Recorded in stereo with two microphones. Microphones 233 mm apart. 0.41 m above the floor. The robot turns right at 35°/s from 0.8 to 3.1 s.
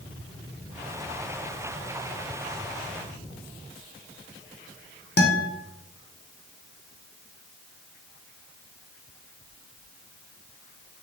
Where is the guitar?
50° left (ahead or behind), 0.6 m.